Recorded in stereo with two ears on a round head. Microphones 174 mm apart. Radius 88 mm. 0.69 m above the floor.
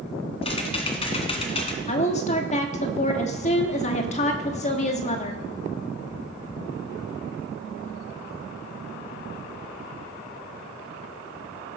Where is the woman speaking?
35° left (ahead or behind), 1.4 m.